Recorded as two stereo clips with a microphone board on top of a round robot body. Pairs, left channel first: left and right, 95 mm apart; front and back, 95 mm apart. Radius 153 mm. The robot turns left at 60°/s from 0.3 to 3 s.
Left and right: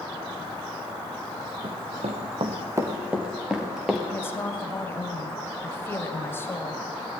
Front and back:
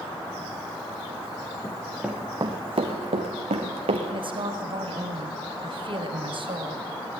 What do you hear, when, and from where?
1.6 s running footsteps: 70° right, 3 m; by 4.0 s 175° right, 4 m
4.1 s a woman speaking: 155° left, 3.5 m